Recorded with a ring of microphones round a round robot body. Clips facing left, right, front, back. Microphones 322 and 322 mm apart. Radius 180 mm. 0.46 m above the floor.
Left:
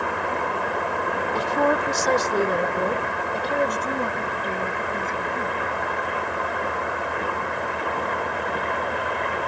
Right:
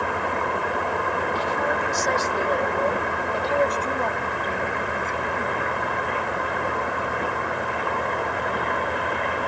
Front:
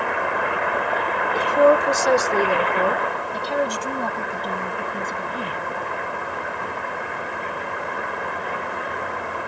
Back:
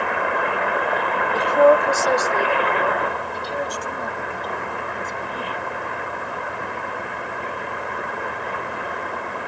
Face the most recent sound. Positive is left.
turn(degrees=5)